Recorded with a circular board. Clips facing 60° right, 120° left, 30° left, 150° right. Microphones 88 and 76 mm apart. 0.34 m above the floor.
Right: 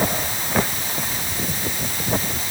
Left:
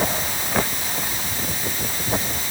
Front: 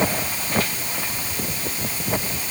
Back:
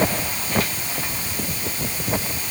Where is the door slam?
No door slam in this recording.